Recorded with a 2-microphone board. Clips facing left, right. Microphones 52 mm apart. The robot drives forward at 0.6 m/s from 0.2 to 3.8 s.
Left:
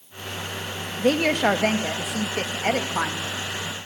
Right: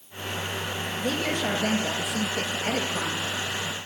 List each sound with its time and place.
1.0 s a woman speaking: 65° left (ahead or behind), 2.5 m; by 3.3 s 75° left (ahead or behind), 2.5 m